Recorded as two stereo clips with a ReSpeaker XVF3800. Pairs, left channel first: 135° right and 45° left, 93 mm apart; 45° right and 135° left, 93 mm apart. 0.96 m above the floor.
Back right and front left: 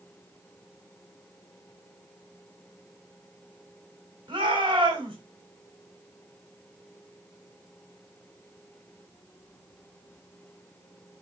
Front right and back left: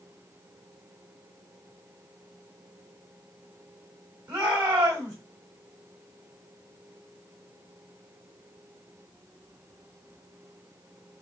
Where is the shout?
85° left, 6 m.